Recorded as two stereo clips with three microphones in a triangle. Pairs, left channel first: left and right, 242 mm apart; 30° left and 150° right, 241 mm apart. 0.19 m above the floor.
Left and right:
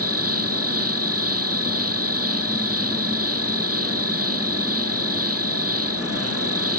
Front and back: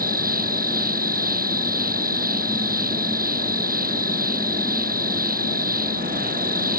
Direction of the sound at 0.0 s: 100° right.